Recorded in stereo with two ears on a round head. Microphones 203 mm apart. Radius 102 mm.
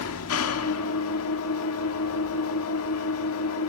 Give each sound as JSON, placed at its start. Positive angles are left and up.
{"t": 0.0, "sound": "an engine running", "side_deg": 70, "distance_m": 2.0}